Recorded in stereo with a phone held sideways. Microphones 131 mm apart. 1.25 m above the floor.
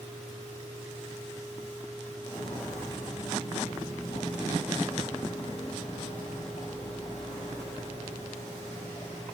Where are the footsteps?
55° left (ahead or behind), 5.5 m; by 9.2 s 60° left (ahead or behind), 3.5 m.